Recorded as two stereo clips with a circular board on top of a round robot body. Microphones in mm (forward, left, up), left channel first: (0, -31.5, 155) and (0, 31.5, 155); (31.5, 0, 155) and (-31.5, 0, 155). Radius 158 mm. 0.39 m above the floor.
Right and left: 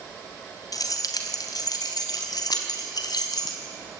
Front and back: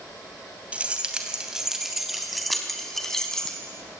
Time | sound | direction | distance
0.7 | keys jangling | 110° right | 2.5 m